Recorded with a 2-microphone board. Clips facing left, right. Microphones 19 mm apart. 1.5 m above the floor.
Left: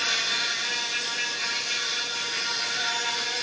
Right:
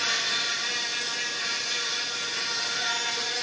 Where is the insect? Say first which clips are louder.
Left 1 dB; 20° left (ahead or behind), 1.0 m.